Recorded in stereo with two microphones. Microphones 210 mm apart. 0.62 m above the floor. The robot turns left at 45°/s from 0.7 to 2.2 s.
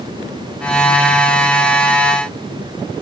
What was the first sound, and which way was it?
Only background noise.